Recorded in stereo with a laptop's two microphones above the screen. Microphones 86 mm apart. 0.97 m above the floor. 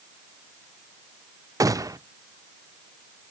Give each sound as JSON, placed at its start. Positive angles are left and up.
{"t": 1.6, "sound": "a gunshot", "side_deg": -40, "distance_m": 0.6}